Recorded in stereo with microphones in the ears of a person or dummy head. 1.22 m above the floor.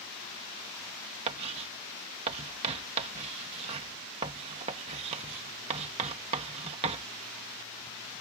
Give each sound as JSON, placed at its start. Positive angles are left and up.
{"t": 1.3, "sound": "writing", "side_deg": -35}